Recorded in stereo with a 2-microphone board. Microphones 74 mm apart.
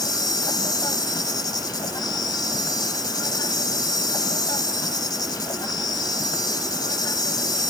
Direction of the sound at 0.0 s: 65° left (ahead or behind).